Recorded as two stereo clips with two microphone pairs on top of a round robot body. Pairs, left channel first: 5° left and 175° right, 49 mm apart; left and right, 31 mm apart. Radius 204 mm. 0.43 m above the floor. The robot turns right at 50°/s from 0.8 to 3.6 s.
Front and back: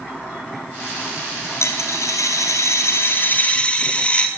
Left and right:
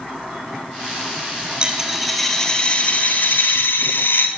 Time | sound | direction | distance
1.6 | a dropped coin | 25° right | 1.4 m